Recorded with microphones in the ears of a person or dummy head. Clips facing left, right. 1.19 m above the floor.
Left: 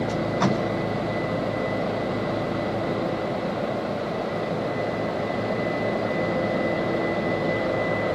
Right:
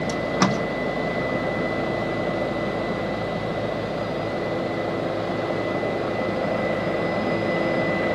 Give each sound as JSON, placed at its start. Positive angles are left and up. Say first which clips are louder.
{"t": 0.1, "sound": "tape being pulled", "louder": "right 3 dB", "side_deg": -65, "distance_m": 1.8}